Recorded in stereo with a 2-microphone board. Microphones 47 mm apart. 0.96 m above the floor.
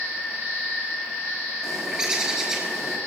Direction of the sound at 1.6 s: 15° right (ahead or behind).